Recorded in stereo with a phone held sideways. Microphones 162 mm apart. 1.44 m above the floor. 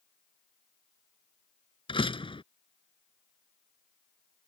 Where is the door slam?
30° left (ahead or behind).